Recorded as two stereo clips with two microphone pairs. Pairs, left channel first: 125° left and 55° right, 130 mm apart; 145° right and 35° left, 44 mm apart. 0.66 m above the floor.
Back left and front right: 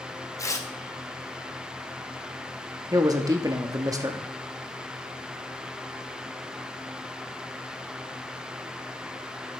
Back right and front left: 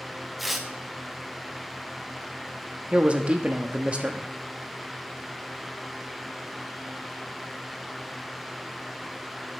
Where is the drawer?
I don't hear a drawer.